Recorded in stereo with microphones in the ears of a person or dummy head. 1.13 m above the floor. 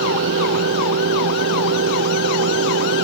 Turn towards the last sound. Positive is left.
turn(degrees=-55)  # may be behind; listen again after turning